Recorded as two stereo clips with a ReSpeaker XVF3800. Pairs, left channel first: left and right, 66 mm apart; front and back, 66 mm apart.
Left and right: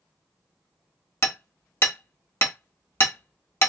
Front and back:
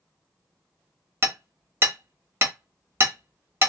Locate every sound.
1.2 s hammering: 135° left, 1.1 m